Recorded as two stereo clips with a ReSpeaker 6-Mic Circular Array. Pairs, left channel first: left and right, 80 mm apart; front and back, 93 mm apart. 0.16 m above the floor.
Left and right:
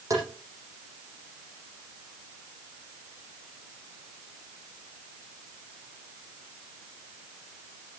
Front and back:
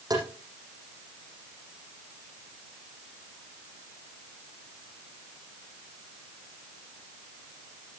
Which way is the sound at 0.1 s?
135° right.